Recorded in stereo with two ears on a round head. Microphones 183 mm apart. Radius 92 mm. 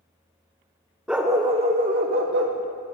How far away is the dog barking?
About 0.6 m.